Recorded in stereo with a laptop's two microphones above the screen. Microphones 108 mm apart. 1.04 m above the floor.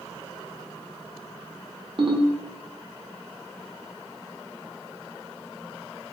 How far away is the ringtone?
About 0.6 m.